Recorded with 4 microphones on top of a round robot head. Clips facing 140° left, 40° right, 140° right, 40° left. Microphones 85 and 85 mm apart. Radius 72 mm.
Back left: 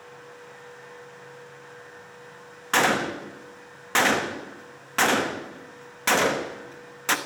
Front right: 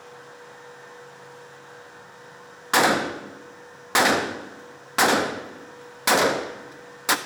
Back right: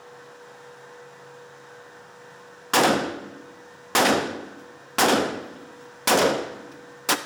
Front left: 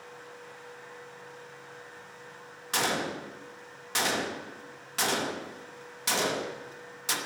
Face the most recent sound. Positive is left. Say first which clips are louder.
# front right 2 dB, back right 10 dB
turn(degrees=-120)